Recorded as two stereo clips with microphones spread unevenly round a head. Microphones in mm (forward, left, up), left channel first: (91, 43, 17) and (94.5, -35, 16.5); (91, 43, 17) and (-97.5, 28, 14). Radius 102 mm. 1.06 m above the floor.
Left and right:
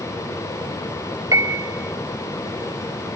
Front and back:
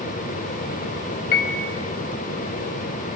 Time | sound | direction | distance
1.3 | a piano | 40° right | 3.5 m